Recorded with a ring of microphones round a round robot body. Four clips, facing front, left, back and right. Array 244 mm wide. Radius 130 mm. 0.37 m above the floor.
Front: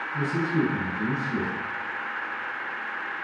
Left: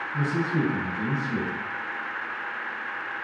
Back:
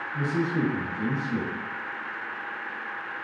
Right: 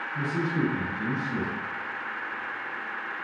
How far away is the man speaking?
About 2 m.